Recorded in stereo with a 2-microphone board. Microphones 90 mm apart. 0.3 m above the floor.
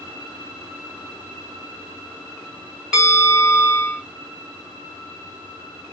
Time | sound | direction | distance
2.9 | a bell | 10° right (ahead or behind) | 1.3 m